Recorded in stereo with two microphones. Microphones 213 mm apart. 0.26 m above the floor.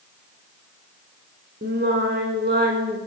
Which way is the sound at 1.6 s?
45° right (ahead or behind).